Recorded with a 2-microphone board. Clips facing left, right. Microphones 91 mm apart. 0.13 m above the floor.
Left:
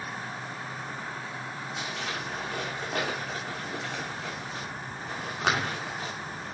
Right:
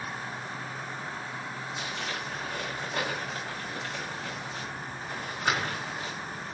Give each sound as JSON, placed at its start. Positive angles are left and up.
{"t": 1.8, "sound": "crumpling", "side_deg": 75, "distance_m": 6.5}